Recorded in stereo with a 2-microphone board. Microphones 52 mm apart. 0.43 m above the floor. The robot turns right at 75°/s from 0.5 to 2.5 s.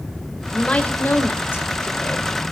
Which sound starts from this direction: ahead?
A woman speaking, at 0.5 s.